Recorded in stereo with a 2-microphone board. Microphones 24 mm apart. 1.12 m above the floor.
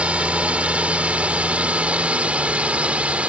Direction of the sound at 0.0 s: 65° right (ahead or behind).